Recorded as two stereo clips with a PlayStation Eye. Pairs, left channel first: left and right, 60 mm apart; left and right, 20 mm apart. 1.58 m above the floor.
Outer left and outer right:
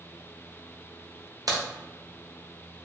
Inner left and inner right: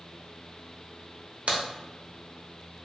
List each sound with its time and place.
1.5 s a crack: 80° right, 0.8 m